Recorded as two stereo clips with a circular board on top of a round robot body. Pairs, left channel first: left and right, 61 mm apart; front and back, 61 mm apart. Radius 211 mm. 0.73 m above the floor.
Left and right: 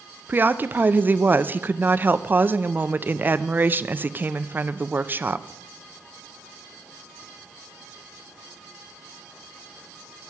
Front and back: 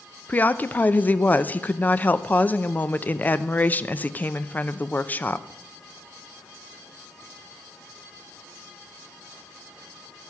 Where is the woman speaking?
50° right, 0.9 m.